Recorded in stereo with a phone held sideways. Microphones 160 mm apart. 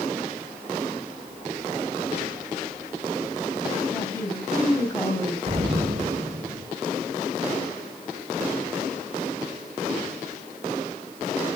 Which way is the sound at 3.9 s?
15° left (ahead or behind).